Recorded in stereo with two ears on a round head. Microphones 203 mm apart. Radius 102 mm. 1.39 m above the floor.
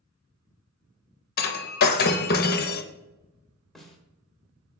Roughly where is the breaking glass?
Left.